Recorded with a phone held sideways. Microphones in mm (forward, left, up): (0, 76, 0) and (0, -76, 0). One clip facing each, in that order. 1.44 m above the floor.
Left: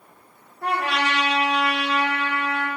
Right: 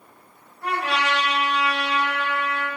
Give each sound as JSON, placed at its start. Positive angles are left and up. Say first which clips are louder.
{"t": 0.6, "sound": "a trumpet", "louder": "left 1 dB", "side_deg": 60, "distance_m": 1.8}